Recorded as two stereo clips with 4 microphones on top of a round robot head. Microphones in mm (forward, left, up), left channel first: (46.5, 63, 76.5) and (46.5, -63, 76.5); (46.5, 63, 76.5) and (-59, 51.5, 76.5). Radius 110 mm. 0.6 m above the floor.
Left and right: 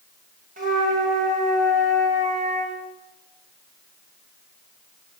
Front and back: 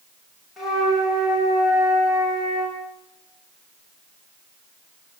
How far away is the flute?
About 9.5 m.